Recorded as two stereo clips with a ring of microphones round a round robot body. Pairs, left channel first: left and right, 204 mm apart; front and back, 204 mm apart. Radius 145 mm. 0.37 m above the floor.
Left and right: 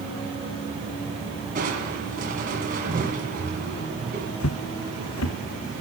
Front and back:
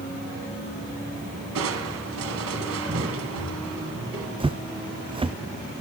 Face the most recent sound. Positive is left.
turn(degrees=115)